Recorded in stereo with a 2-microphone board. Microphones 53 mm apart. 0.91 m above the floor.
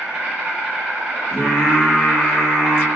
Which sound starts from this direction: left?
Singing, at 1.3 s.